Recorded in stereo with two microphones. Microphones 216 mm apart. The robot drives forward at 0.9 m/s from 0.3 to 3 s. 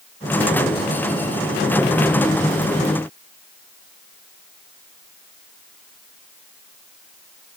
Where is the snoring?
No snoring in this recording.